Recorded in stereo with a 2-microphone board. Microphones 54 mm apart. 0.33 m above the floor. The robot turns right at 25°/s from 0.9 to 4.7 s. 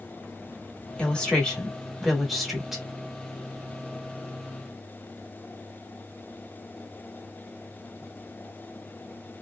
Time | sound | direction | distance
1.0 | a woman speaking | 145° left | 1.1 m